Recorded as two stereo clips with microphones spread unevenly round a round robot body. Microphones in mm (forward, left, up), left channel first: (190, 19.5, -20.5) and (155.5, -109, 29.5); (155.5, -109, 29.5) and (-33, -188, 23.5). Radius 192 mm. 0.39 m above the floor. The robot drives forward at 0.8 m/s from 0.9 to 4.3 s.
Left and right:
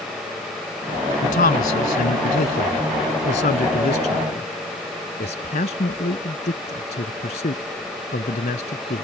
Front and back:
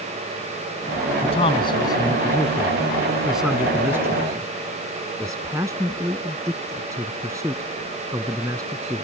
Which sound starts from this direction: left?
A man speaking, at 1.2 s.